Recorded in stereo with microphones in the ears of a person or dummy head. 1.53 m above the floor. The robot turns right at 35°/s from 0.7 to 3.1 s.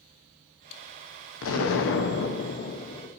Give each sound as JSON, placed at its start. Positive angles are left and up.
{"t": 1.4, "sound": "an explosion", "azimuth_deg": 90, "distance_m": 0.6}